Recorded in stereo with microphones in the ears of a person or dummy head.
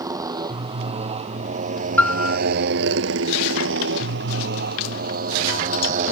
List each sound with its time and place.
0.0 s a motorcycle: 20° right (ahead or behind); by 6.1 s 45° right (ahead or behind)
2.0 s a piano: 10° left (ahead or behind)